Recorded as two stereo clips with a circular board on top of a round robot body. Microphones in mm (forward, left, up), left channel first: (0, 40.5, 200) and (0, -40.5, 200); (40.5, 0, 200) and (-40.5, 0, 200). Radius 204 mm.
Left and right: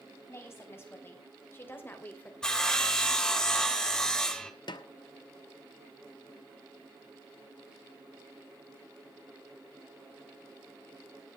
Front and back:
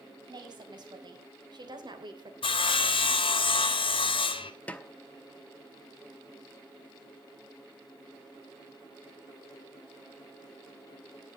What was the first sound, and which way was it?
A woman speaking, 150° left.